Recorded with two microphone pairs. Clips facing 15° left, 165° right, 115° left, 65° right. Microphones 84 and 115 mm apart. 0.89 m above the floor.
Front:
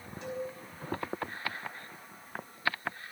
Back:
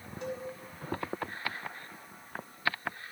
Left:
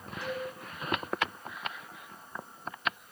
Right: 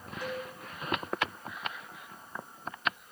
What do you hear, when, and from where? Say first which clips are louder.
0.2 s a cowbell: front 1 dB, left 1 dB; 140° right, 8 m